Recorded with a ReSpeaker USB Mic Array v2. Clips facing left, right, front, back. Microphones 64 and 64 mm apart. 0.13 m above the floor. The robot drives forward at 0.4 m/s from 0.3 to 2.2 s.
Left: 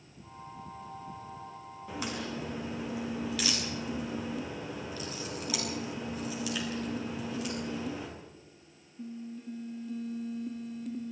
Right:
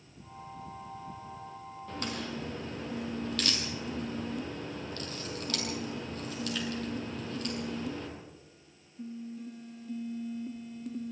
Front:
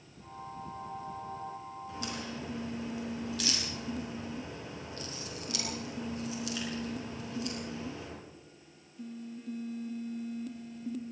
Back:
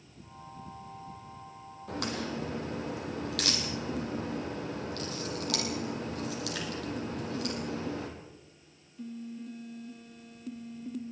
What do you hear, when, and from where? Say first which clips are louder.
1.9 s a crack: left 1 dB, back 7 dB; 170° left, 4.5 m